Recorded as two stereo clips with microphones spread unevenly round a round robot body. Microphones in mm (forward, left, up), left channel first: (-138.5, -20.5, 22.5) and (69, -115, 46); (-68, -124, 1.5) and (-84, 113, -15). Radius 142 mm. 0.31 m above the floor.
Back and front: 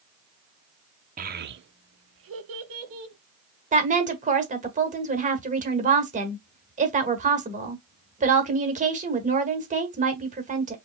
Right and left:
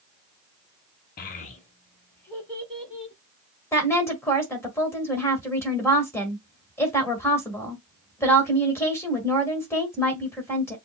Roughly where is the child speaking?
Ahead right.